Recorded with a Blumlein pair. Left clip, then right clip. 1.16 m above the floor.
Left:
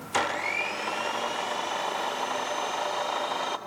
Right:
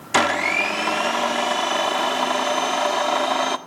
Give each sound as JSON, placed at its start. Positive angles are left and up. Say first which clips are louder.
{"t": 0.1, "sound": "a blender", "louder": "right 8 dB", "azimuth_deg": -40, "distance_m": 1.5}